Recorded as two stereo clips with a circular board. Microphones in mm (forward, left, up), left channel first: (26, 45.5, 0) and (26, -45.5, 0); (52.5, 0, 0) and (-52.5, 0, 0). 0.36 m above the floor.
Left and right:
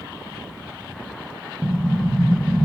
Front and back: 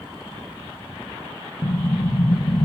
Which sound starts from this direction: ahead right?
An explosion, at 1.6 s.